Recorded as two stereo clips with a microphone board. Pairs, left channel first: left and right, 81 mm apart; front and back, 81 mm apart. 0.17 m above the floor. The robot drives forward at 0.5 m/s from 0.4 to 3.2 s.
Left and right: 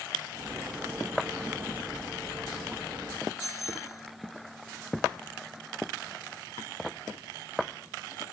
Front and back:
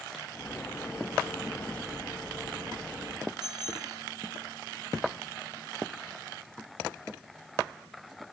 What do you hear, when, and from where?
3.4 s a bicycle bell: 140° left